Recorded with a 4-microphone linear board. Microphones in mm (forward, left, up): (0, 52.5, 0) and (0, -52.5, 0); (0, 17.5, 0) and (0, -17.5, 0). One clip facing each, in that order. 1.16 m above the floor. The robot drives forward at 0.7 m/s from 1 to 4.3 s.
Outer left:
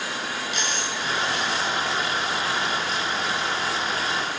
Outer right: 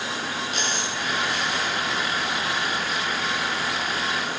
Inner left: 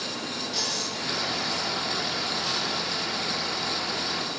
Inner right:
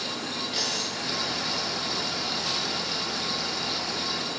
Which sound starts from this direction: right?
A dropped coin, at 0.5 s.